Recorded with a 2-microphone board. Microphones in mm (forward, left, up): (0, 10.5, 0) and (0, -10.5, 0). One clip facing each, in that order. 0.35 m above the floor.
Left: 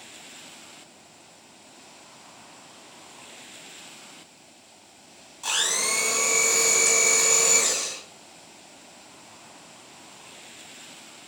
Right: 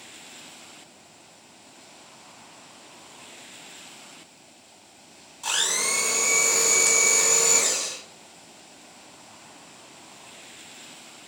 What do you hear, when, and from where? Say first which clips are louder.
5.4 s a blender: even; centre (ahead or behind), 1.1 m